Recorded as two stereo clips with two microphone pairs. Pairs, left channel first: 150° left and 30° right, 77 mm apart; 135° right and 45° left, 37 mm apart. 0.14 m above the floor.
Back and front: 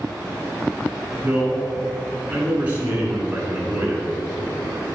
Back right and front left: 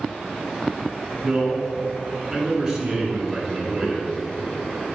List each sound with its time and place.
1.2 s a man speaking: 25° left, 1.7 m